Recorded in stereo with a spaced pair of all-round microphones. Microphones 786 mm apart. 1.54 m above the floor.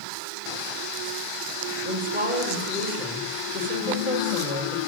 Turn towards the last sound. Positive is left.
turn(degrees=-10)  # may be behind; listen again after turning